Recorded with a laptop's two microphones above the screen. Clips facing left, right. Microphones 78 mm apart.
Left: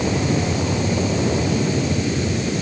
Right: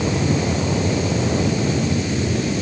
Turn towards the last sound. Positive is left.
No sound to turn to.